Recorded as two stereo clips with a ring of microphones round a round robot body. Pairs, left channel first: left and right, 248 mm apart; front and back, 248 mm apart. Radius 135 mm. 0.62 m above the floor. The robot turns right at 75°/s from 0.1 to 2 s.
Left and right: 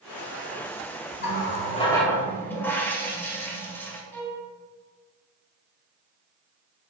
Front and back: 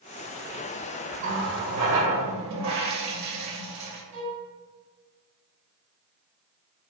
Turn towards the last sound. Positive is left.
turn(degrees=170)